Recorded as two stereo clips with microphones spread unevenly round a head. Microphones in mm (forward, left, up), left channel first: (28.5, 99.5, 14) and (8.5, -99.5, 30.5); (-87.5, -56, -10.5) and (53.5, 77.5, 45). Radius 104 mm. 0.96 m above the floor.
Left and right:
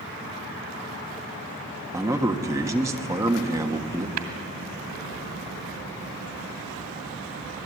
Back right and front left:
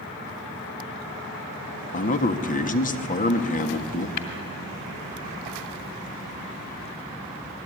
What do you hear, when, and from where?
1.9 s a man speaking: 175° right, 1.6 m
4.2 s tapping: 95° right, 2.5 m